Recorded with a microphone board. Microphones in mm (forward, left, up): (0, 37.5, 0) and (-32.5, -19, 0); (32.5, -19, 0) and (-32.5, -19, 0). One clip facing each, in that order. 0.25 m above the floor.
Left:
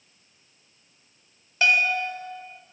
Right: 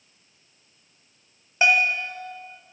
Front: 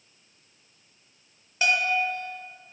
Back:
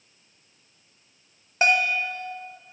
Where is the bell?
175° right, 1.2 m.